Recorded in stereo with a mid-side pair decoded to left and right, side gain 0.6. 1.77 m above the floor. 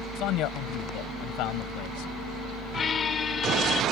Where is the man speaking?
65° left; by 2.1 s 70° left.